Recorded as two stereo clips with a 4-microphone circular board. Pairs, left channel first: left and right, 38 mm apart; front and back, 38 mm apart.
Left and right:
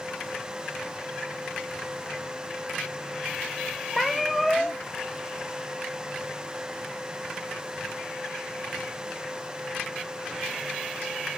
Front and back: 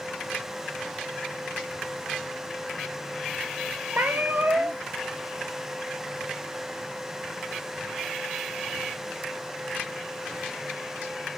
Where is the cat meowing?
175° right, 1.1 m.